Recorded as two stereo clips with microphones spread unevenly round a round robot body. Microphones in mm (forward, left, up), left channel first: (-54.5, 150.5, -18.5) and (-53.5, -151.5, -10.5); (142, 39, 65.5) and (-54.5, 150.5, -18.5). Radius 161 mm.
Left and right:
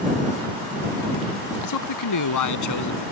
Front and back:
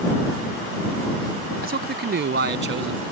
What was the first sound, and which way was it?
A man speaking, 110° left.